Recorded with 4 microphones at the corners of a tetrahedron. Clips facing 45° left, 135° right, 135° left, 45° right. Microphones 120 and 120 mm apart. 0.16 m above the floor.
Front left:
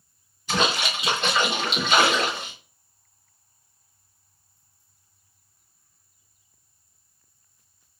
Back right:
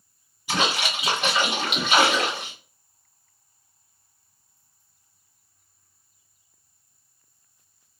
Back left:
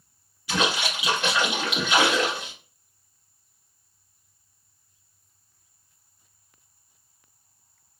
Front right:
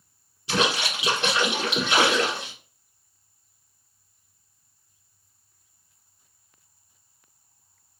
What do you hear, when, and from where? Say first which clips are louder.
0.5 s a splash: front left 1 dB, front right 1 dB; 65° right, 1.5 m